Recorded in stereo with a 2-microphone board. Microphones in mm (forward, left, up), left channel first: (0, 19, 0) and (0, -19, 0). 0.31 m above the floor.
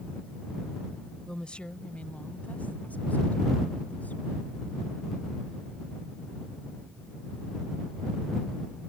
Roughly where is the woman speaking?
Centre.